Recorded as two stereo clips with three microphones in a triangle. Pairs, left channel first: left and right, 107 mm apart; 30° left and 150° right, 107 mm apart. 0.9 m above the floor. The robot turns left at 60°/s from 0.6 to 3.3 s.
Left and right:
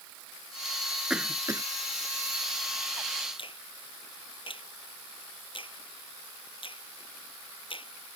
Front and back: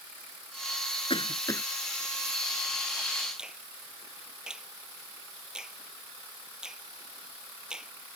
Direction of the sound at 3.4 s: 125° left.